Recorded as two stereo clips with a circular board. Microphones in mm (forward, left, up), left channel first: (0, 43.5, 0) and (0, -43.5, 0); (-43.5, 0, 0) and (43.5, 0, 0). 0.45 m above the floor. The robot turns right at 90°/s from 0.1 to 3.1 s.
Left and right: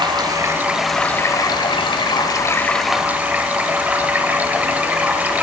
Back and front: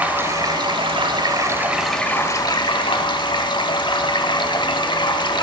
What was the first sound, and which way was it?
Running water, 70° right.